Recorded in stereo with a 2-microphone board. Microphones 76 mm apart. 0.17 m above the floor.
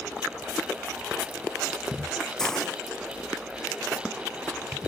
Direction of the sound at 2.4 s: 10° left (ahead or behind).